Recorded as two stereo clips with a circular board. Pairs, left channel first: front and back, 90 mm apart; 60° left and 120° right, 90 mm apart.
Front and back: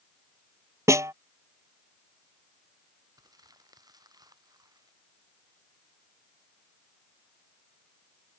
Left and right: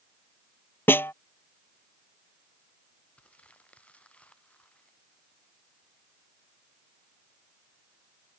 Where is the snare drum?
125° left.